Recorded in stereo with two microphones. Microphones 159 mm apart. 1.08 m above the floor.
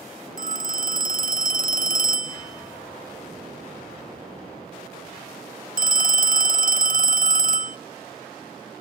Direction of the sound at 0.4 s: 60° right (ahead or behind).